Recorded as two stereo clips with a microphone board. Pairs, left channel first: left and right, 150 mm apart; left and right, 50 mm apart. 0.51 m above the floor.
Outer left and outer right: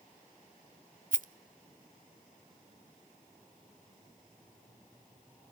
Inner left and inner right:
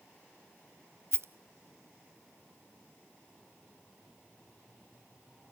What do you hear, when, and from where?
1.1 s a rattle: 65° right (ahead or behind), 0.9 m